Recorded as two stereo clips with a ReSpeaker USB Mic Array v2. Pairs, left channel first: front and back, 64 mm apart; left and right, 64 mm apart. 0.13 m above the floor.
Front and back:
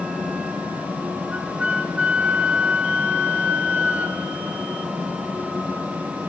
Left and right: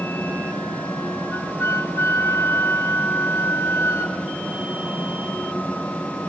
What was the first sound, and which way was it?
A flute, 115° left.